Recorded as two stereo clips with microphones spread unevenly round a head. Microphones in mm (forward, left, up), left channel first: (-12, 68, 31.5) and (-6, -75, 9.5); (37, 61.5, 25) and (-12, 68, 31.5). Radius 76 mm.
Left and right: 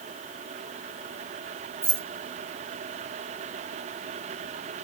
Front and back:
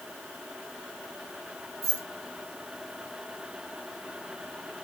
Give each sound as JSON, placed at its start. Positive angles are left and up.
{"t": 1.8, "sound": "keys jangling", "azimuth_deg": -165, "distance_m": 1.4}